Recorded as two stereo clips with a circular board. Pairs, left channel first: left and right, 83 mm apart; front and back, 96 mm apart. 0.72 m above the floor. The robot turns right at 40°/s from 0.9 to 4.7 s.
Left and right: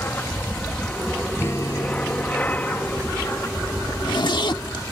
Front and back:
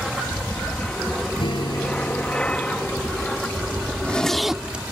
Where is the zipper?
70° left; by 4.8 s 100° left.